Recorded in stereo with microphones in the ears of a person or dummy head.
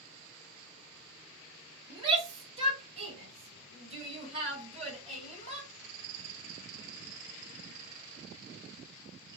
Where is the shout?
25° right (ahead or behind), 1.6 m; by 5.7 s 40° right (ahead or behind), 3.5 m.